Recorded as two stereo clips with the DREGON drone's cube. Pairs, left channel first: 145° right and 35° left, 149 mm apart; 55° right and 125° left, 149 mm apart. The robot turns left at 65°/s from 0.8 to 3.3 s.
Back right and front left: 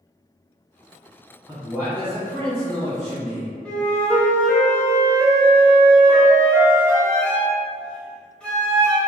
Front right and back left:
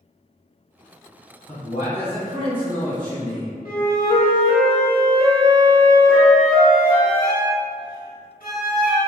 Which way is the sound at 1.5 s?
15° right.